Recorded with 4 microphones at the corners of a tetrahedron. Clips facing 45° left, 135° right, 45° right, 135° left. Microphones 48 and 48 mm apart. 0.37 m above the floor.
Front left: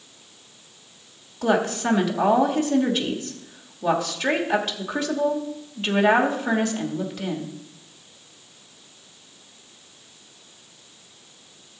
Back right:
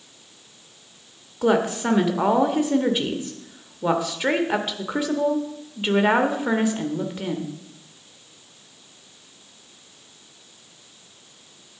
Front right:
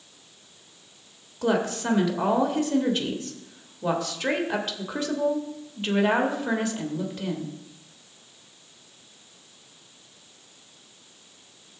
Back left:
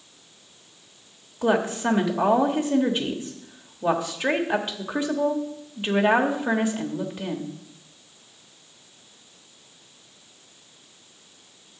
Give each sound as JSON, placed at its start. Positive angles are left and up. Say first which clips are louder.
{"t": 1.4, "sound": "a woman speaking", "louder": "back right 1 dB, back left 2 dB", "azimuth_deg": 175, "distance_m": 1.2}